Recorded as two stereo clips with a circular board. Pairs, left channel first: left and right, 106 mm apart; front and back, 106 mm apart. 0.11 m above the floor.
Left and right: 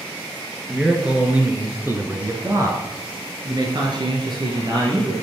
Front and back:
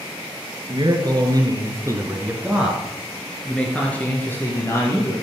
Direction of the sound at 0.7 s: 175° right.